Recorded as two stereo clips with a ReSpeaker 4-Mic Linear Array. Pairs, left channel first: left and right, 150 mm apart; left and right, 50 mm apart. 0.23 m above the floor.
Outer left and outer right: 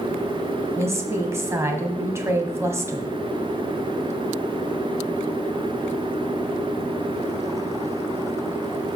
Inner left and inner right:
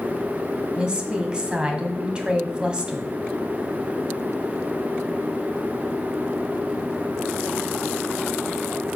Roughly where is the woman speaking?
Centre.